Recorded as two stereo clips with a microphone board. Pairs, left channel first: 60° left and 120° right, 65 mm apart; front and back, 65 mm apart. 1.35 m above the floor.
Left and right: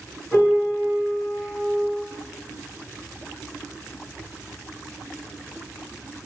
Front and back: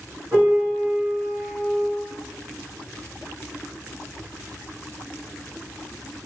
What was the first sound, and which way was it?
A piano, 150° left.